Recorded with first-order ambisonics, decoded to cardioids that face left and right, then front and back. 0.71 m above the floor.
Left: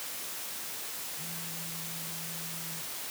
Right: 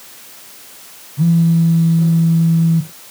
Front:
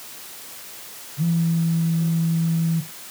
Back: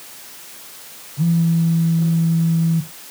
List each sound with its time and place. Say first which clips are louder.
1.2 s a phone buzzing: right 21 dB, back 4 dB; 105° right